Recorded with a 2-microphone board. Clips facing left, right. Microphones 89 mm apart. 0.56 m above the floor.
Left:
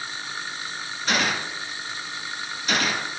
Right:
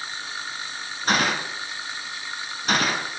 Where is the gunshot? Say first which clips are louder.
Right 2 dB; 45° right (ahead or behind), 1.3 m.